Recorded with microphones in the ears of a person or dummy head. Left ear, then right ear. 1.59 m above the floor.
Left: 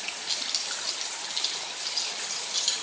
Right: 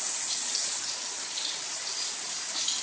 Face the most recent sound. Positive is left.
turn(degrees=70)  # may be behind; listen again after turning